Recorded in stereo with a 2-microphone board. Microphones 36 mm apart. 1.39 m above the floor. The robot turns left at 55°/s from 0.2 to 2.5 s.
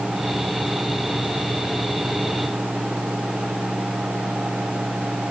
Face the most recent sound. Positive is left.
No sound to turn to.